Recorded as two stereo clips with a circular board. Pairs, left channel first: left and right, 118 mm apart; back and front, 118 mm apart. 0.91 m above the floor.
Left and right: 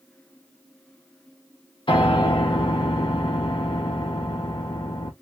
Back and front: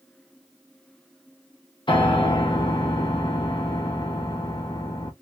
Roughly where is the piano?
Behind left.